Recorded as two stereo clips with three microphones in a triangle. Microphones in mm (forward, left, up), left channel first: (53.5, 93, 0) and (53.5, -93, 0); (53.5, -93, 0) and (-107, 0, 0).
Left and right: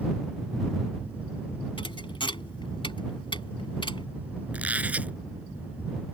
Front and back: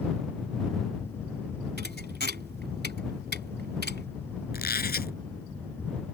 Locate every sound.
1.8 s a thud: 150° left
4.5 s a squeak: 10° right